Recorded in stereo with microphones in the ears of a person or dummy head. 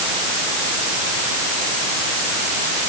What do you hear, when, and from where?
Only background noise.